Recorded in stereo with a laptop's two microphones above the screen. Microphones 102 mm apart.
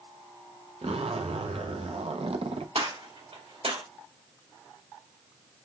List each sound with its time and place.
0.8 s a zipper: 75° right (ahead or behind), 0.5 m
2.8 s a gunshot: 80° right, 1.9 m